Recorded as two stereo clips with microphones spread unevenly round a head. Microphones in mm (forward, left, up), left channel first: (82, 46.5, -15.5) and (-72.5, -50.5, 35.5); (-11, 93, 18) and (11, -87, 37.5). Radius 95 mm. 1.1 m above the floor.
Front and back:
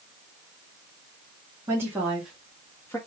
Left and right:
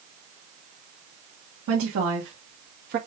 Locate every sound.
1.7 s a woman speaking: 70° right, 1.6 m; by 3.0 s 45° right, 1.4 m